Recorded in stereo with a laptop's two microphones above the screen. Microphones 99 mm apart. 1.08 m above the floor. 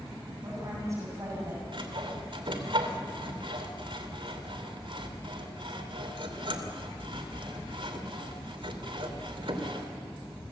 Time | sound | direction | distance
0.4 | a woman speaking | 30° right (ahead or behind) | 7.5 m
1.7 | sawing | 60° right (ahead or behind) | 2.5 m